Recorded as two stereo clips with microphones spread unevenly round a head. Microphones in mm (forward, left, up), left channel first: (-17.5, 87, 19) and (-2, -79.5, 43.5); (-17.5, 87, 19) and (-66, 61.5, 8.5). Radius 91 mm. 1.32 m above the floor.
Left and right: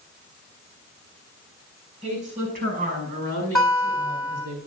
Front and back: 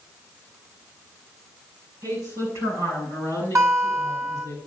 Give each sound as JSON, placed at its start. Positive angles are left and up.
{"t": 2.0, "sound": "a woman speaking", "azimuth_deg": -135, "distance_m": 5.5}
{"t": 3.5, "sound": "a guitar", "azimuth_deg": -175, "distance_m": 7.0}